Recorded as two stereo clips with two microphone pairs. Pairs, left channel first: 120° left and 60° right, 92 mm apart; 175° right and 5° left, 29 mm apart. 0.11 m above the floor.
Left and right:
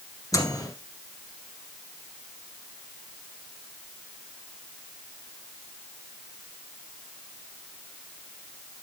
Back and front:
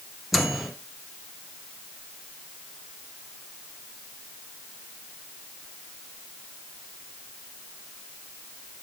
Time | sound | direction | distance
0.3 | a microwave | 90° left | 2.0 m